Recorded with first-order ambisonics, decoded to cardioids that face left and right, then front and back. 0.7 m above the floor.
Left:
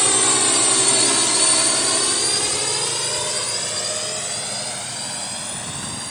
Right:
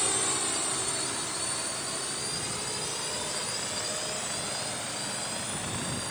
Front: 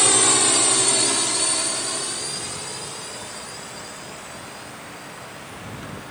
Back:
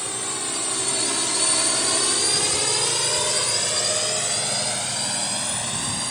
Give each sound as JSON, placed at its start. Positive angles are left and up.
{"t": 0.0, "sound": "a drone", "azimuth_deg": 40}